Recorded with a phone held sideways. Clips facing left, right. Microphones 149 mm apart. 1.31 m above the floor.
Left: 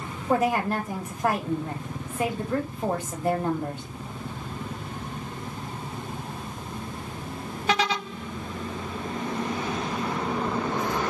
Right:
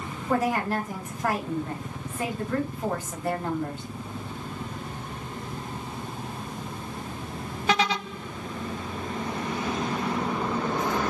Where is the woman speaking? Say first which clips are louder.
Left 2 dB; 20° left (ahead or behind), 2 m.